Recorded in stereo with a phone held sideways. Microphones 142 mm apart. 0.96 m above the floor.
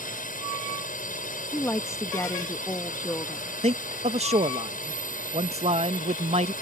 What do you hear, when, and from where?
0.0 s a drone: 70° left (ahead or behind)
1.5 s a woman speaking: 20° left (ahead or behind)
3.6 s a man speaking: 50° right (ahead or behind)